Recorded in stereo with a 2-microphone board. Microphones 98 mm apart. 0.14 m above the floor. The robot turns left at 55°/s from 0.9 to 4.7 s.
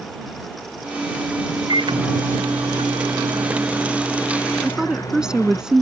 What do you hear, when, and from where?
1.7 s a microwave: 50° right; by 5.6 s 145° left
4.6 s a woman speaking: 5° right (ahead or behind); by 5.8 s 10° right (ahead or behind)